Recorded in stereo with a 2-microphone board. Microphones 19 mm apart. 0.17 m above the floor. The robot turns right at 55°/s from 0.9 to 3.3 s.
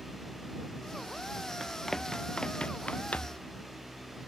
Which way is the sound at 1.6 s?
Centre (ahead or behind).